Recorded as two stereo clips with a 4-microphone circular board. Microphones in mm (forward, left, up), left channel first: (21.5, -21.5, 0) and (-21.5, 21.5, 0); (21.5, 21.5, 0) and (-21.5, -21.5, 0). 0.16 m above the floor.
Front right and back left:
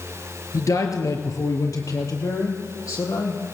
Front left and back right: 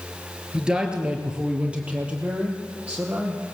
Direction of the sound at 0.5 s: 60° right.